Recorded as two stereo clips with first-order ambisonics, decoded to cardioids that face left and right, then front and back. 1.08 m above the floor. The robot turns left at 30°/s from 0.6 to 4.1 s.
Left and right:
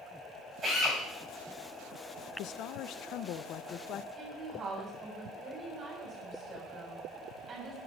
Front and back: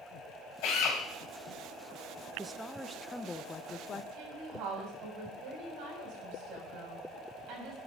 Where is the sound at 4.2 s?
150° right, 6 m.